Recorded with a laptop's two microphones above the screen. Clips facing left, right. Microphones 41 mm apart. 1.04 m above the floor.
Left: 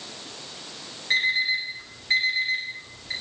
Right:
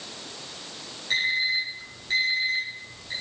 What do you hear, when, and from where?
1.1 s an alarm clock: 20° left (ahead or behind), 5 m